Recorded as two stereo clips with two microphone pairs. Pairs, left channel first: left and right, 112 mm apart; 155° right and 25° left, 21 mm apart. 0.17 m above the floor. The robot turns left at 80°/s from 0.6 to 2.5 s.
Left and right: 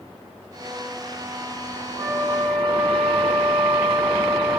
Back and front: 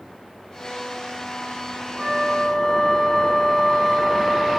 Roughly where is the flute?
Ahead right.